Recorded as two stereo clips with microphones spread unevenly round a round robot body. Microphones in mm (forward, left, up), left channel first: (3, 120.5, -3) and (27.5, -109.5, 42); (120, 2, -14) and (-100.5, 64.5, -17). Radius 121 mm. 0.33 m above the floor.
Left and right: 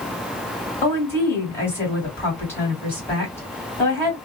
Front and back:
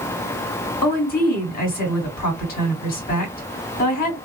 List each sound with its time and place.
0.8 s a woman speaking: 25° left, 2 m